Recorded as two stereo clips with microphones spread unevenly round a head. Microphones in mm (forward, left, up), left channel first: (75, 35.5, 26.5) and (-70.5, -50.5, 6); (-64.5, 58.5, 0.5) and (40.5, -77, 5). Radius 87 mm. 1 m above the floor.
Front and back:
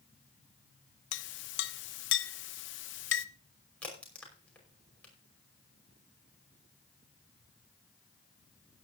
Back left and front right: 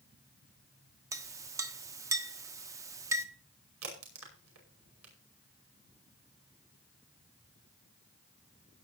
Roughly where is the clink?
Ahead.